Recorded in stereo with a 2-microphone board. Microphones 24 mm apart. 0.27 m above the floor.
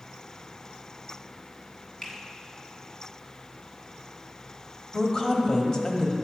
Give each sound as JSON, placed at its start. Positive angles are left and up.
{"t": 2.0, "sound": "a finger snap", "side_deg": 35, "distance_m": 1.7}
{"t": 4.9, "sound": "a woman speaking", "side_deg": 30, "distance_m": 1.0}